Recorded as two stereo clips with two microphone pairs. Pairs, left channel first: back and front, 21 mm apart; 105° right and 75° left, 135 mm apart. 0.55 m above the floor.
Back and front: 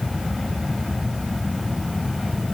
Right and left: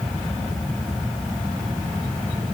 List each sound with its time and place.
Only background noise.